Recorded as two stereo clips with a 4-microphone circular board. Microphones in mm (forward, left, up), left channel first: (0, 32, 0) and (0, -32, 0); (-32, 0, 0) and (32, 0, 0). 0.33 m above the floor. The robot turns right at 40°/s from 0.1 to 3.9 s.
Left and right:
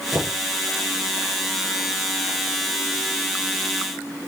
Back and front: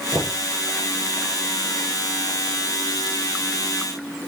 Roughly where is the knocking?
Behind right.